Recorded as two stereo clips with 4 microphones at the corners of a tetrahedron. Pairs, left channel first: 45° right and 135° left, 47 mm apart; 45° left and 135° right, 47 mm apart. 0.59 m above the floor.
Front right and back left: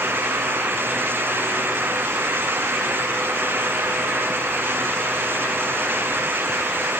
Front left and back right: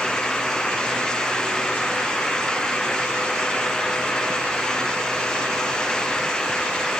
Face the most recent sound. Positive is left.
No sound to turn to.